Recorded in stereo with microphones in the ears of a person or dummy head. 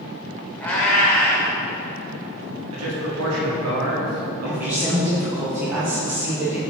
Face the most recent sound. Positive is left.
turn(degrees=-15)  # may be behind; listen again after turning